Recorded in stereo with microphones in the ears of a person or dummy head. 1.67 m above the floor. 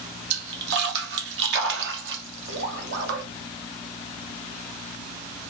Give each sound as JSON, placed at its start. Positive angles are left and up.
{"t": 0.3, "sound": "a splash", "side_deg": -65, "distance_m": 0.7}